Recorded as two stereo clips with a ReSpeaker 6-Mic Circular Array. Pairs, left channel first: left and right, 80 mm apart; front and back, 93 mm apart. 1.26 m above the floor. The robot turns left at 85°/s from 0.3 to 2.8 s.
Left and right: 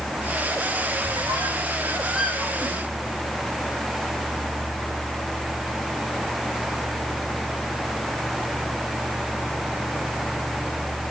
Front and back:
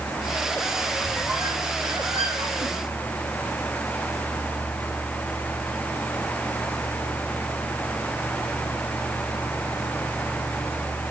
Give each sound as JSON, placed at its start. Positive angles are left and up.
{"t": 1.0, "sound": "a squeak", "azimuth_deg": -75, "distance_m": 1.9}